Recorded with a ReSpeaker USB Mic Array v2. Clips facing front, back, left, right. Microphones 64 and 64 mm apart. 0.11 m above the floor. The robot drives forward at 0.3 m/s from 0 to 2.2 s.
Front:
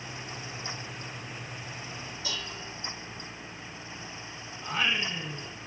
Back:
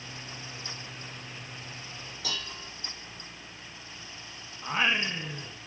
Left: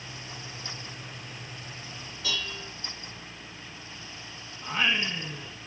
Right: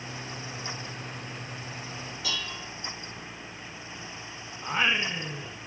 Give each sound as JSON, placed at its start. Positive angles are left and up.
{"t": 2.2, "sound": "dishes clattering", "azimuth_deg": -170, "distance_m": 2.5}
{"t": 4.6, "sound": "singing", "azimuth_deg": -140, "distance_m": 0.5}